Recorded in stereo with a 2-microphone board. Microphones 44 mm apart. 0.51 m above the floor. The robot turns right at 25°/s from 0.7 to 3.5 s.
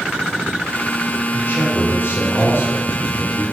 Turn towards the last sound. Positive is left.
turn(degrees=130)